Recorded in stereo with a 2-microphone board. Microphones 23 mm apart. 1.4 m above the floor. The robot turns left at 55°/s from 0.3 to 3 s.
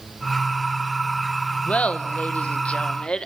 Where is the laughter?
115° left, 0.9 m; by 3.3 s 45° left, 0.9 m.